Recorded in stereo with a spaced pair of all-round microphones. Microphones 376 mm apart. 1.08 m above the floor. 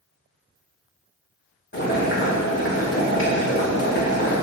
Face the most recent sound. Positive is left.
turn(degrees=35)  # may be behind; listen again after turning